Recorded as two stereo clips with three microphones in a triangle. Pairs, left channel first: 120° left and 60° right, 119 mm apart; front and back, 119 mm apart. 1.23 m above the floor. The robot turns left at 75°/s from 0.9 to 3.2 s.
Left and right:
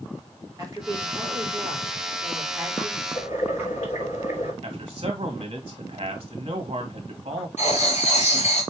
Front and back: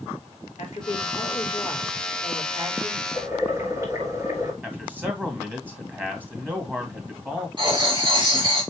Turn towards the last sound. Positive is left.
turn(degrees=130)